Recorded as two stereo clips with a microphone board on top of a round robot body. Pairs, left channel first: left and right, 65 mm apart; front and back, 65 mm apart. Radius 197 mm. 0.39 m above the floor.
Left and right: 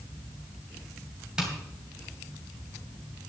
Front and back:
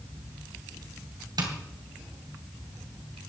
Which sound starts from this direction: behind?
Tapping, at 1.4 s.